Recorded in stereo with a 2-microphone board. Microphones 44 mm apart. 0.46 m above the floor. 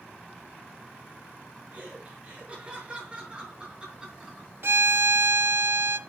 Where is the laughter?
35° right (ahead or behind), 5.5 m; by 4.5 s 15° right (ahead or behind), 5.5 m.